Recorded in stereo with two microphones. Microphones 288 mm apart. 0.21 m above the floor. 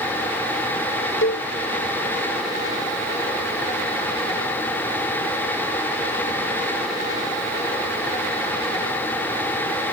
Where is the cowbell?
45° left (ahead or behind).